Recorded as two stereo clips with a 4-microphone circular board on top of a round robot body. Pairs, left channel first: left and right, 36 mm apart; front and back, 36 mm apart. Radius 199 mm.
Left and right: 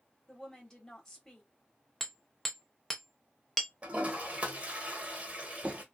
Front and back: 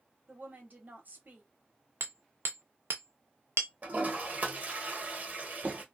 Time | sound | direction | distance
0.3 | a woman speaking | 170° left | 1.4 m
2.0 | hammering | 175° left | 0.6 m
3.8 | a toilet flushing | 140° right | 1.1 m